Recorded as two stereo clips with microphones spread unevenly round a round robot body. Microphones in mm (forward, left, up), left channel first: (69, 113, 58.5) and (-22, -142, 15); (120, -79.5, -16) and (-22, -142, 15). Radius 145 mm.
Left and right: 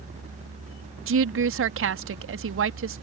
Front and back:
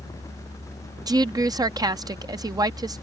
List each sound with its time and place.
1.1 s a woman speaking: 85° right